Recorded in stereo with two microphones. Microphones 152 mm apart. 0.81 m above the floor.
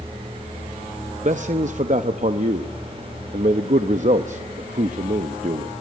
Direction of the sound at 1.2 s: 55° right (ahead or behind).